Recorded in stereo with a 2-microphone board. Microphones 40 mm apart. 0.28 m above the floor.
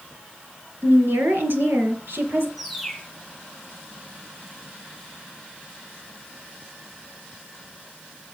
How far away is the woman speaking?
About 3 m.